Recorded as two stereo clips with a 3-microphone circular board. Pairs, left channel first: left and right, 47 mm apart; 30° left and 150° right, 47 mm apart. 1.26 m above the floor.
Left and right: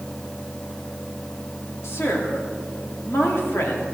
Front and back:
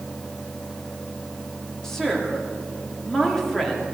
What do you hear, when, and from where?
1.8 s a woman speaking: 110° left, 2.5 m